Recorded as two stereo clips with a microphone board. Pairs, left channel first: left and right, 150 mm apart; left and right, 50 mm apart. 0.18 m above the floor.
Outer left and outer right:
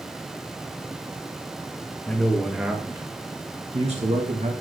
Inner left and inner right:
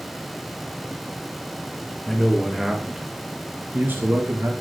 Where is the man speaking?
10° left (ahead or behind), 3 m; by 4.5 s 60° right (ahead or behind), 3 m.